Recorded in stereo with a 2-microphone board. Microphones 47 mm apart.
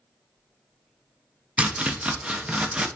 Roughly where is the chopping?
Right.